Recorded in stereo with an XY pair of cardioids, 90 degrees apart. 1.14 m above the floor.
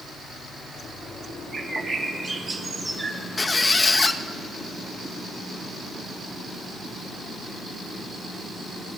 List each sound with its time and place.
1.5 s a bird: 40° right, 2.5 m
3.4 s a squeak: 25° left, 0.8 m